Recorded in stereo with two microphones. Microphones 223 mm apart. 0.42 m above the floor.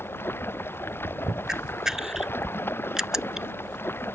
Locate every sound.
0.0 s running water: 10° left (ahead or behind)
1.5 s a camera shutter: centre (ahead or behind)